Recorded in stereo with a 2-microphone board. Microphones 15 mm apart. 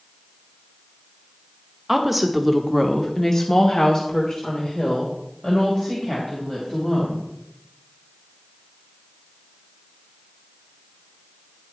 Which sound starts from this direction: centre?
A woman speaking, at 1.9 s.